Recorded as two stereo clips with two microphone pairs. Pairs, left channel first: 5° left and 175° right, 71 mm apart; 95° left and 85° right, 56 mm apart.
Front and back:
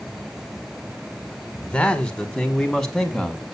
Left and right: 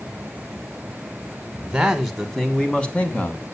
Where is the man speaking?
35° right, 1.2 m; by 3.5 s 90° left, 1.3 m.